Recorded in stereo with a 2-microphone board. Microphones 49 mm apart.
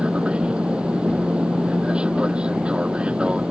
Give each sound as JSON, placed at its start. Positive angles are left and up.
{"t": 0.0, "sound": "an aircraft", "side_deg": -25}